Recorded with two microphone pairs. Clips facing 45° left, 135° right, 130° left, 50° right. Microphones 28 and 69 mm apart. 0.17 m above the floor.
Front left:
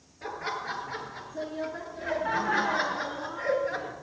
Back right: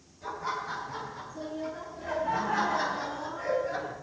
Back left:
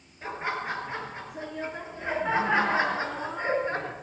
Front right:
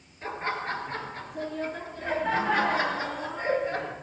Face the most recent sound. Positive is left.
turn(degrees=90)